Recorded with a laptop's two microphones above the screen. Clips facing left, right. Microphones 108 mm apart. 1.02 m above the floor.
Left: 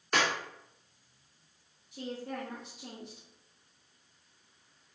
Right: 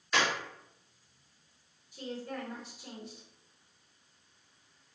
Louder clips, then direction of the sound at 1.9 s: Left 1 dB; 70° left (ahead or behind).